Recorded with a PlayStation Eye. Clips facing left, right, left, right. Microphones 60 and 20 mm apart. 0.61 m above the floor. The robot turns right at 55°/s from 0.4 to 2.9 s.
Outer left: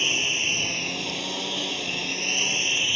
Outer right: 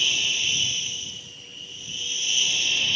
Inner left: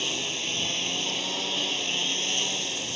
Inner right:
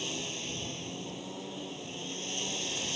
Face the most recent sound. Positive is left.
turn(degrees=165)